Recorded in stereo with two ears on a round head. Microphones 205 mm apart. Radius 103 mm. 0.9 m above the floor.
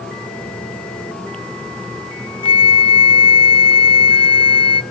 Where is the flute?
25° left (ahead or behind), 0.5 m.